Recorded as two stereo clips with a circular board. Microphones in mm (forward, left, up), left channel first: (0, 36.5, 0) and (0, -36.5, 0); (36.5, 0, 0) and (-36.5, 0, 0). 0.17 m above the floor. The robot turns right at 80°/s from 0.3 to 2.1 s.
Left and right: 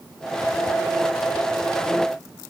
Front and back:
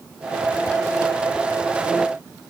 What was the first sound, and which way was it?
Only background noise.